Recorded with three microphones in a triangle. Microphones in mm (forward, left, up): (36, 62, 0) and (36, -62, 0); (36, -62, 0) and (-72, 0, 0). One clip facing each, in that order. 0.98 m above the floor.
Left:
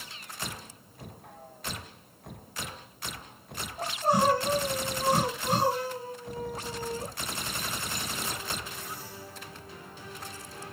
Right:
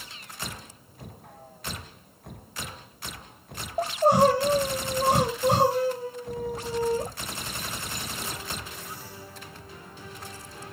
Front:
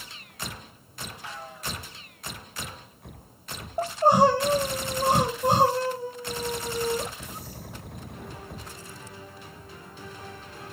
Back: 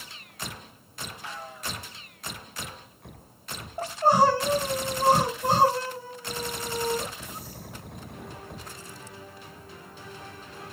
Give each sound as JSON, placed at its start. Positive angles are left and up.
{"t": 3.8, "sound": "crying", "azimuth_deg": -100, "distance_m": 5.0}